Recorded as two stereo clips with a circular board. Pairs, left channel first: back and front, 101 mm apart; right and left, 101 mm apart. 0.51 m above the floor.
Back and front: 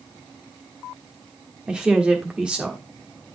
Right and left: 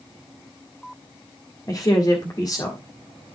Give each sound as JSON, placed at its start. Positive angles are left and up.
{"t": 1.7, "sound": "a woman speaking", "azimuth_deg": -75, "distance_m": 1.4}